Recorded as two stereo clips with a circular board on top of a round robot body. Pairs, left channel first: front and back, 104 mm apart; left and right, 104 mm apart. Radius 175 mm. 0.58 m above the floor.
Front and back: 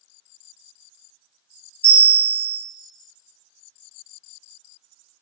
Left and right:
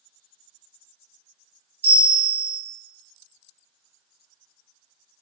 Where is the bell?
70° right, 1.4 m.